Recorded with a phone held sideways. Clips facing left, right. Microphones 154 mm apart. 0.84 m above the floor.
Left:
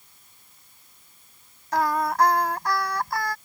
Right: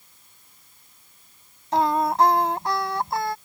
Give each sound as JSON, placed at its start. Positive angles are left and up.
{"t": 1.7, "sound": "singing", "side_deg": -25}